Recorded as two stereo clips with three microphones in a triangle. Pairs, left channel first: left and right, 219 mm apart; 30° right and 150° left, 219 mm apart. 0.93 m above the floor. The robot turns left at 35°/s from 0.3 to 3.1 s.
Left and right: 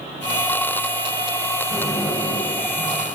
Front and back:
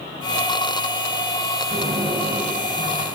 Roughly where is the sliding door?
Behind.